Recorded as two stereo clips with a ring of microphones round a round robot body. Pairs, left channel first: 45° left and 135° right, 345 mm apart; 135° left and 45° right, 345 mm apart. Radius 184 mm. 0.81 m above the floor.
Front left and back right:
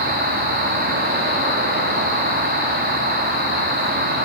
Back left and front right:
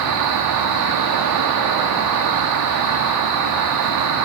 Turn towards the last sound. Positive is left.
turn(degrees=-75)